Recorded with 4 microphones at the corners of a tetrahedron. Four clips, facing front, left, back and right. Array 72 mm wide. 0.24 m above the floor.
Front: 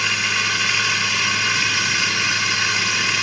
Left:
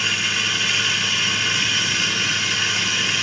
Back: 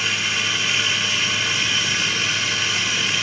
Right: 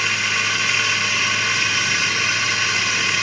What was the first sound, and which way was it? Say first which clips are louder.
Running water: right 2 dB, front 2 dB; 55° right.